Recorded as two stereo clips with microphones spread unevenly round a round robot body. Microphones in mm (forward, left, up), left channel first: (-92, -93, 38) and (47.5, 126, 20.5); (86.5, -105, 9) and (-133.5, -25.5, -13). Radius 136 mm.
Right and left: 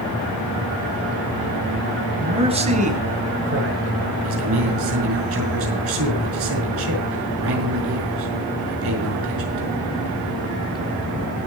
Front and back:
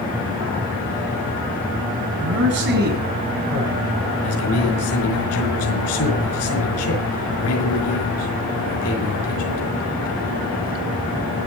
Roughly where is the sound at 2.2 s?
Behind left.